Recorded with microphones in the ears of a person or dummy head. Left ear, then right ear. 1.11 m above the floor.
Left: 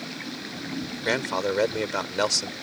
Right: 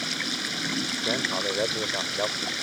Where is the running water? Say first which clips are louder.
Right 7 dB; 75° right (ahead or behind).